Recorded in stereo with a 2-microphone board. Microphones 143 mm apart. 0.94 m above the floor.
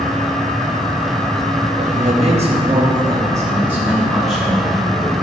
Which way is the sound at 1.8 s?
60° right (ahead or behind).